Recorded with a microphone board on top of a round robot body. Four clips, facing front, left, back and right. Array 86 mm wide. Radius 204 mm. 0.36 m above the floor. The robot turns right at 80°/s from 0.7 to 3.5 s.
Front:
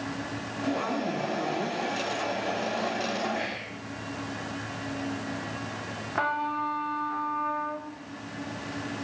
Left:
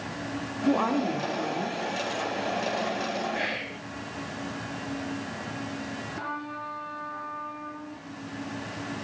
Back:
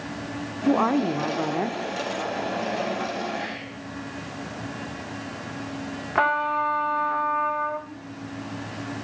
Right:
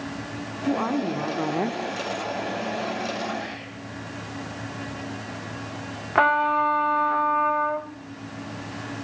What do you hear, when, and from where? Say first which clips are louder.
0.7 s a woman speaking: even, back 9 dB; 160° left, 1.3 m; by 1.8 s 110° right, 1.3 m
3.3 s whispering: left 1 dB, back 1 dB; 80° left, 2.5 m; by 3.8 s 90° left, 2.5 m
6.2 s a trumpet: right 19 dB, back 6 dB; 115° right, 1.9 m